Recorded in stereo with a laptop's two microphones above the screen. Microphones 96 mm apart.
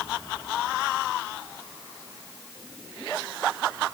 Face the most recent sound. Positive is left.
No sound to turn to.